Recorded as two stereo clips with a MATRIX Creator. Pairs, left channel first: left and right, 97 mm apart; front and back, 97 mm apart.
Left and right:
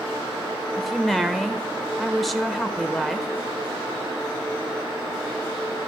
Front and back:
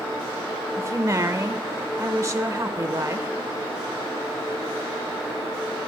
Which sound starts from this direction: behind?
A woman speaking, at 0.8 s.